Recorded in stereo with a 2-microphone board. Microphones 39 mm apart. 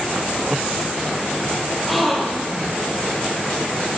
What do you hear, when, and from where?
1.9 s a gasp: centre (ahead or behind), 2.5 m